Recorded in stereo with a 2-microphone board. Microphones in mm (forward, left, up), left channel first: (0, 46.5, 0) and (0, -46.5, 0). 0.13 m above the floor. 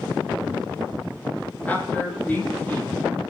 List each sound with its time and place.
1.6 s a man speaking: 20° left (ahead or behind), 4 m